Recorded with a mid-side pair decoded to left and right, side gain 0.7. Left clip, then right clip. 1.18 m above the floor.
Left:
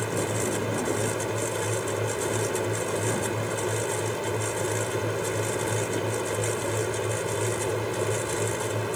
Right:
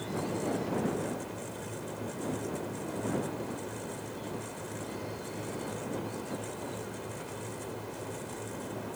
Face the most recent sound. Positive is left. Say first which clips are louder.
# left 7 dB
turn(degrees=55)